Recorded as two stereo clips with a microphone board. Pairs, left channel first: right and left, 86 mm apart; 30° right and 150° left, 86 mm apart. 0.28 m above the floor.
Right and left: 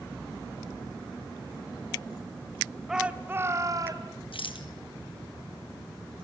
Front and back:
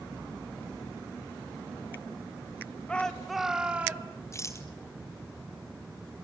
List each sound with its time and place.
2.9 s a shout: 15° left, 1.5 m; by 4.1 s 85° left, 2.5 m
4.3 s a rattle: 85° right, 1.7 m